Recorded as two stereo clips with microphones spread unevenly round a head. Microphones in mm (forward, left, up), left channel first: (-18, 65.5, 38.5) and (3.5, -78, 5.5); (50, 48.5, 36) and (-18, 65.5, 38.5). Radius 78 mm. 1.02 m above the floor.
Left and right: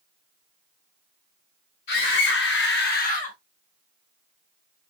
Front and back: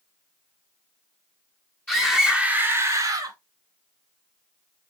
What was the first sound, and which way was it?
A scream, 55° left.